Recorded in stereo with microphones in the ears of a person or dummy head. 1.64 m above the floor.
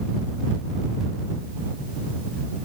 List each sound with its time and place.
Only background noise.